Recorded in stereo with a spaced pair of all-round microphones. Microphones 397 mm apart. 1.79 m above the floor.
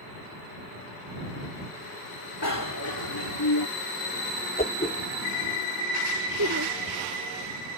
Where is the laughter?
45° right (ahead or behind).